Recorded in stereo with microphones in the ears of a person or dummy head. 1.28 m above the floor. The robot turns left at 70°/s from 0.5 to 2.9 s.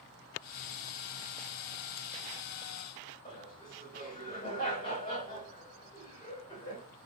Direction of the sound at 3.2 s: 25° left (ahead or behind).